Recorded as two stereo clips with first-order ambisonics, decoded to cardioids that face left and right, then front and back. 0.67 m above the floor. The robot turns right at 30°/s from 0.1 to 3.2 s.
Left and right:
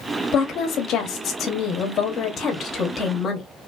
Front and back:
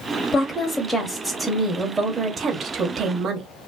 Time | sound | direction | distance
0.3 | a woman speaking | 55° left | 0.8 m